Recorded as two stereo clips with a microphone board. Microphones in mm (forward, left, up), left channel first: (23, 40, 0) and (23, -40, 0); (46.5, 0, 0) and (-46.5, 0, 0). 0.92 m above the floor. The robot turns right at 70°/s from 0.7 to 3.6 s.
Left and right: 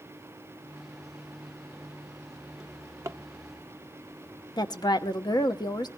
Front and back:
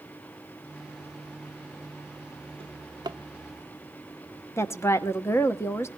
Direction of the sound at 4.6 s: 60° left.